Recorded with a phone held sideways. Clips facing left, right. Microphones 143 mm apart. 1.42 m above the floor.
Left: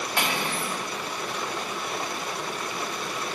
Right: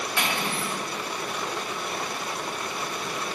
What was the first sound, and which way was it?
Cutlery clinking, 60° left (ahead or behind).